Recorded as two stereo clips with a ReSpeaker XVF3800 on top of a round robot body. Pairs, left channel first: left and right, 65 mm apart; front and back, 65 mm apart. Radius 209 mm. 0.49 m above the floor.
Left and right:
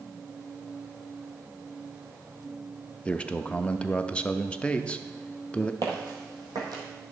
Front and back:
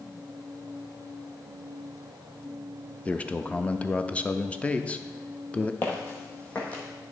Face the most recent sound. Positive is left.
turn(degrees=-70)